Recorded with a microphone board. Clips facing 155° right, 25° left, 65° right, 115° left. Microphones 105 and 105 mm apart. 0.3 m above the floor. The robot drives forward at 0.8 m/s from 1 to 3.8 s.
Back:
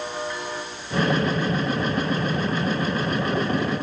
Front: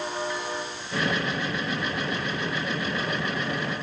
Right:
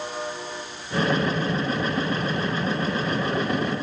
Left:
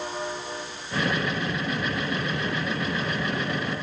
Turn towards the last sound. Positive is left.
No sound to turn to.